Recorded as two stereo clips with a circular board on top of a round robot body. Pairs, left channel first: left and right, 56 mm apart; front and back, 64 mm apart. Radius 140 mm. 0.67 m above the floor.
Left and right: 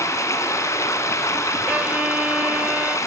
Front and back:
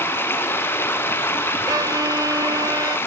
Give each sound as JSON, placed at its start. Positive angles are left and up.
{"t": 0.0, "sound": "running water", "azimuth_deg": 60, "distance_m": 2.5}
{"t": 1.7, "sound": "a violin", "azimuth_deg": -155, "distance_m": 0.6}